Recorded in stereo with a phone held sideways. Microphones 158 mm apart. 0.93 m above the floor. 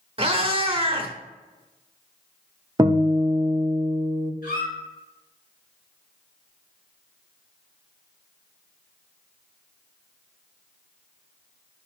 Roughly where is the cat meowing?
Right.